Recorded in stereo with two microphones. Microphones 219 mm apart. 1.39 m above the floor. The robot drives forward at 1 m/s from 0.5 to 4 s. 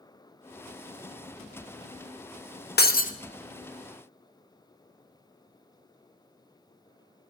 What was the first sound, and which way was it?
Breaking glass, 45° left (ahead or behind).